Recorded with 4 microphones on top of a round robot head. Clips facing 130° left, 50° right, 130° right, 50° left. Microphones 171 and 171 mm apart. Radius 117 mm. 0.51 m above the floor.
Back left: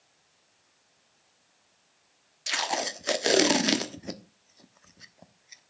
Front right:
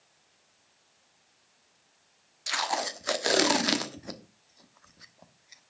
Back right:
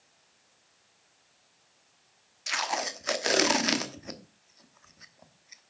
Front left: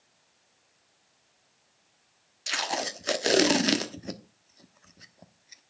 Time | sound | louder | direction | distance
2.5 | tape being pulled | even, front left 1 dB | 80° left | 1.1 m